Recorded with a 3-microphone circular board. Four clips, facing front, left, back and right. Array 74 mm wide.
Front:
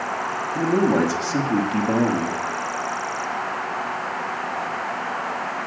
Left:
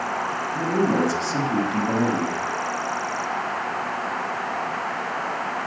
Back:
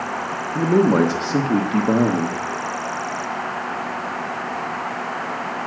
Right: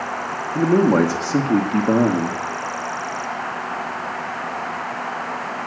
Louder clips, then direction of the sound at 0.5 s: Right 7 dB, back 3 dB; 125° right.